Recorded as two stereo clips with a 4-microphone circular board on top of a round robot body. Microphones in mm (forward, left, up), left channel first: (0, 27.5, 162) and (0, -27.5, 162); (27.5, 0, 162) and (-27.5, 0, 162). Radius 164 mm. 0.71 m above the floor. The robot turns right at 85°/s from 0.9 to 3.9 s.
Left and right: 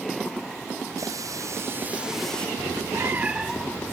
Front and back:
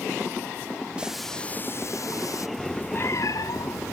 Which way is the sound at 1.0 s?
105° right.